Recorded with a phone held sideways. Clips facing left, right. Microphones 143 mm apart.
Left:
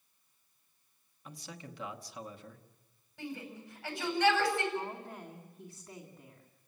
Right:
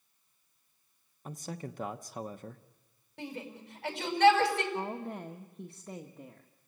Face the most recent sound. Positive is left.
turn(degrees=-65)  # may be behind; listen again after turning